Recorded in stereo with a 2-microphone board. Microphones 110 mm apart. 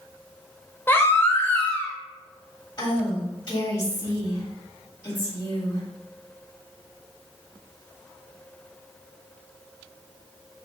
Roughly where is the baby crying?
Left.